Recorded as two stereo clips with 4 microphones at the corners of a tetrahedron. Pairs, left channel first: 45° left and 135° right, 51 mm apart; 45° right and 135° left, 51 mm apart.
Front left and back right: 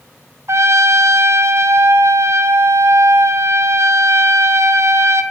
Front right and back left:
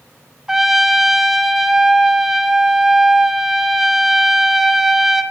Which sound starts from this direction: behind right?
A trumpet, at 0.5 s.